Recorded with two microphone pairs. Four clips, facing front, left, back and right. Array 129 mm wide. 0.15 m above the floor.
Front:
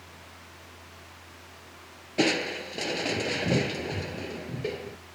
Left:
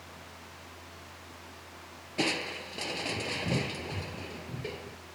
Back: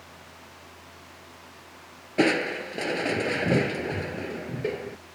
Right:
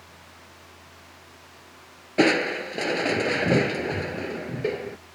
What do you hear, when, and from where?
2.2 s crushing: 100° right